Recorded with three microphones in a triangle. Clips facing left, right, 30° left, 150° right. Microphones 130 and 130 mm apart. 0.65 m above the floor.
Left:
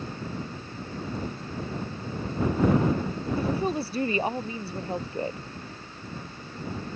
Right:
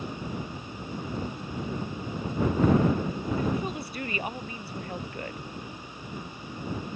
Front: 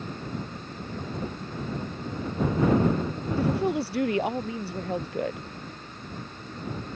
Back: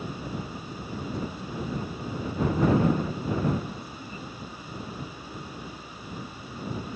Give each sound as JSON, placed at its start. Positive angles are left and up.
{"t": 3.4, "sound": "a woman speaking", "azimuth_deg": 30}